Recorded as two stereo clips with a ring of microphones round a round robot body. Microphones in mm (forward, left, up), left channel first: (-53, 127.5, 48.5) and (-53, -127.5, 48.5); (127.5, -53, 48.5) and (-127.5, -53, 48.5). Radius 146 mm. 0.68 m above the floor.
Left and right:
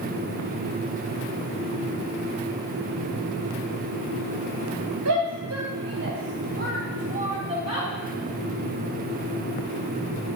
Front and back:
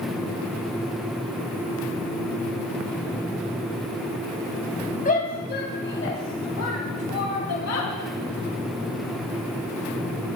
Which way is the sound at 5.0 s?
60° right.